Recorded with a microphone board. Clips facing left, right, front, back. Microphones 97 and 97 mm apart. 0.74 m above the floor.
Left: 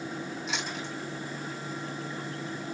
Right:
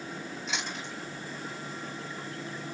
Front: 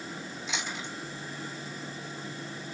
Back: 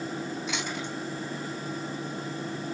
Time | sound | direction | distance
0.5 | chewing | 175° left | 3.5 m